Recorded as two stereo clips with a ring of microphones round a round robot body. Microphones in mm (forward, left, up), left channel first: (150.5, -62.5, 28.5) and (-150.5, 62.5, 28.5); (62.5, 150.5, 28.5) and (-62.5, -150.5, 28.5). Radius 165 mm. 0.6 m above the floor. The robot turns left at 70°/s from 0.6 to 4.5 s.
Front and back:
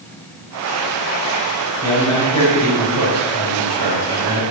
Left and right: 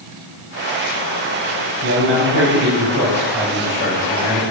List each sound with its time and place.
1.8 s a man speaking: 90° right, 3.5 m; by 4.4 s 90° left, 3.5 m